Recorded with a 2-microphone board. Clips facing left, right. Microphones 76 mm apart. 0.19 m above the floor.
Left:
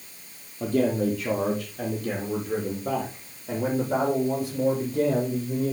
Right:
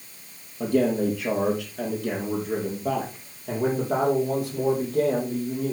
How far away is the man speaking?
About 4.5 m.